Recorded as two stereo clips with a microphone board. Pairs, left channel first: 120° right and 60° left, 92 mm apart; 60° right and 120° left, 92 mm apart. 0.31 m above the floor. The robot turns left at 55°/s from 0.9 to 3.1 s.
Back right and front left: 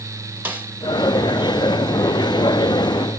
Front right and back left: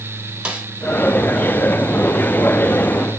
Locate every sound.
0.5 s a snare drum: 65° left, 0.9 m